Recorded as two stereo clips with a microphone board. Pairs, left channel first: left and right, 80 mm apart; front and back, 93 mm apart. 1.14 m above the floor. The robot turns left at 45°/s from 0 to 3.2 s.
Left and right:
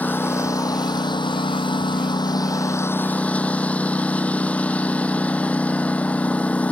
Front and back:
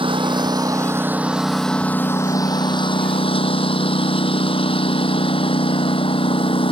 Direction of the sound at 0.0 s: 160° left.